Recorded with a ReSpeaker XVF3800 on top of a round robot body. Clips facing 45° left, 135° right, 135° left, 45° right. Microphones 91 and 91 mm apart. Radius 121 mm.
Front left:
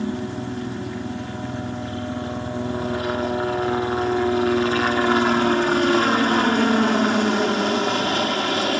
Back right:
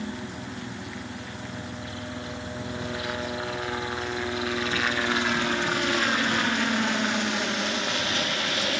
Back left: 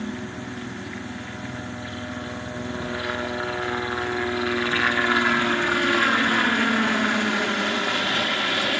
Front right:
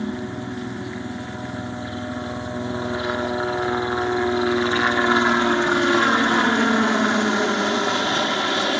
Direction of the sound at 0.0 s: 15° left.